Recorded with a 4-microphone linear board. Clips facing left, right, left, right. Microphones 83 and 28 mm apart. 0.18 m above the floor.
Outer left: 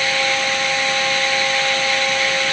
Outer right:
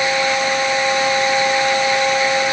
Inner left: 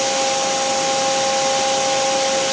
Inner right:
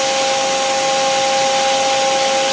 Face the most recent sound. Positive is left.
No sound to turn to.